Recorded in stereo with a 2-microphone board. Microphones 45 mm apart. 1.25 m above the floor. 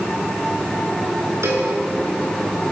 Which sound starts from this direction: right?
A cowbell, at 1.4 s.